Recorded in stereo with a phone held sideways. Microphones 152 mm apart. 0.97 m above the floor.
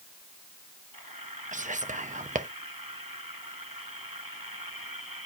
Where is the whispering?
60° right (ahead or behind), 0.8 m.